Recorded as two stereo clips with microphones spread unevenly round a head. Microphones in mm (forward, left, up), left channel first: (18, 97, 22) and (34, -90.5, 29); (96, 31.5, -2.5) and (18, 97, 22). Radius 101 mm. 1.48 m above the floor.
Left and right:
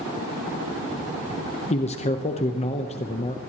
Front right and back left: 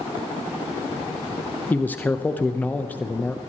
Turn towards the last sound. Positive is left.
turn(degrees=35)